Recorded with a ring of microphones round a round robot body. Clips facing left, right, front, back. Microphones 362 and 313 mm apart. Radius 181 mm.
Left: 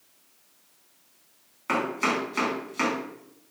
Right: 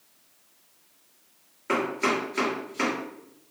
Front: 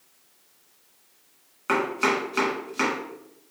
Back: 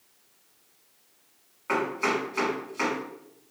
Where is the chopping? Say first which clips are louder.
Right 2 dB, front 2 dB; 35° left, 1.6 m.